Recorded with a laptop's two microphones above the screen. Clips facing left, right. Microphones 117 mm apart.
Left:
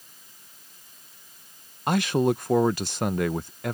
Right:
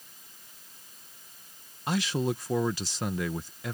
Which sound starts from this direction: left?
A man speaking, at 1.9 s.